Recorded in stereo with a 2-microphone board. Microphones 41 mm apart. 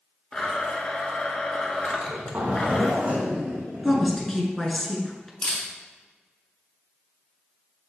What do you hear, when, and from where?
0.3 s a blender: 25° left (ahead or behind), 1.0 m
1.9 s a zipper: 45° right (ahead or behind), 1.8 m
3.8 s a woman speaking: 10° left (ahead or behind), 1.3 m
5.4 s a camera shutter: 40° left (ahead or behind), 1.8 m